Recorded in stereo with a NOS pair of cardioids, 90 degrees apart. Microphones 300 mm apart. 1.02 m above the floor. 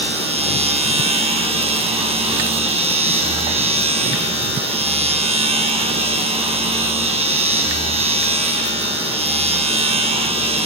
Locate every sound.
0.0 s a machine running: 20° right, 5.5 m